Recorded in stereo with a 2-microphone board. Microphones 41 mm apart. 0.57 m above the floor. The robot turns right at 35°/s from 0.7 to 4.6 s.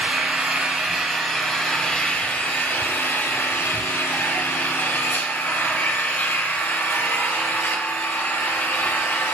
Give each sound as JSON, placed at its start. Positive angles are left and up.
{"t": 0.0, "sound": "an engine running", "azimuth_deg": -25, "distance_m": 0.9}